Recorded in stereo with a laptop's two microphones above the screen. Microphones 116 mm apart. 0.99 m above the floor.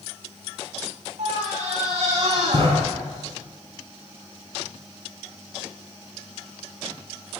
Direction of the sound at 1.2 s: 85° right.